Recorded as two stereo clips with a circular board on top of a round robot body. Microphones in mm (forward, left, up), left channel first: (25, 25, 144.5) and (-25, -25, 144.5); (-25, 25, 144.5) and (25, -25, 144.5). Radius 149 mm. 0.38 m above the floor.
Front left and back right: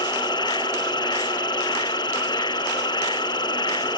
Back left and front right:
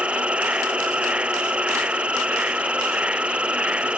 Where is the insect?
30° left.